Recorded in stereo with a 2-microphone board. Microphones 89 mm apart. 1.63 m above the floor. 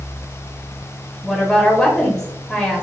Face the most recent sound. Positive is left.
turn(degrees=5)  # may be behind; listen again after turning